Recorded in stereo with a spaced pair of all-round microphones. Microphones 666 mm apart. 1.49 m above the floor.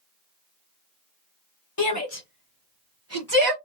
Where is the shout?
30° left (ahead or behind), 1.0 m; by 3.5 s 35° right (ahead or behind), 1.1 m.